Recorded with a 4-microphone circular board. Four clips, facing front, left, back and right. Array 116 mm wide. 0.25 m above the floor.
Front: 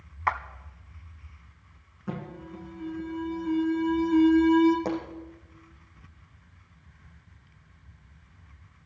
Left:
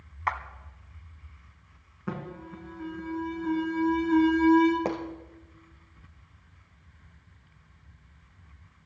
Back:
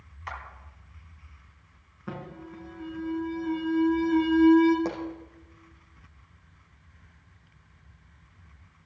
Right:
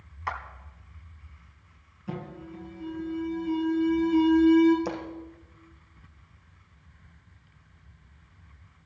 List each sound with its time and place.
0.3 s a clap: 20° left, 1.3 m
2.1 s an alarm: 105° left, 3 m
4.8 s a pop: 90° left, 2.5 m